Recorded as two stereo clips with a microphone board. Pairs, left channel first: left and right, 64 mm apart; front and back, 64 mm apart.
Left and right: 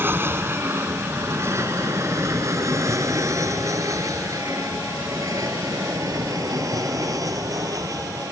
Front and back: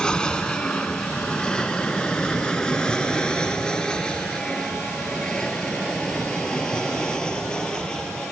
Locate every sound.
0.0 s an aircraft: 70° right; by 8.3 s 75° right